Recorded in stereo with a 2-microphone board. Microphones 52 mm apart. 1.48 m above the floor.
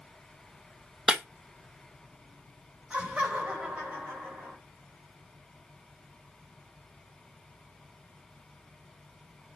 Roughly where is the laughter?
Right.